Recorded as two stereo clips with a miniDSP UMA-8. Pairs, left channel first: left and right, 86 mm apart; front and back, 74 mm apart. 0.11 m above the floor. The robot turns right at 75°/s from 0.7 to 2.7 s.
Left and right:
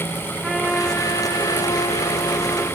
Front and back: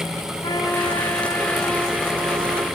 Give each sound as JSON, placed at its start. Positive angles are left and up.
{"t": 0.4, "sound": "a trumpet", "azimuth_deg": 0, "distance_m": 5.5}